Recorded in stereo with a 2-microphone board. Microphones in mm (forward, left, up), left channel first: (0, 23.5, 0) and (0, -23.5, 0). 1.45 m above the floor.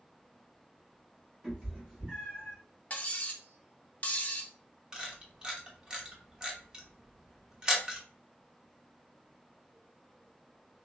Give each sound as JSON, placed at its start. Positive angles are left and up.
{"t": 1.4, "sound": "a cat meowing", "side_deg": -15, "distance_m": 1.7}
{"t": 2.9, "sound": "cutlery clinking", "side_deg": 30, "distance_m": 0.6}
{"t": 4.9, "sound": "a camera shutter", "side_deg": -20, "distance_m": 0.7}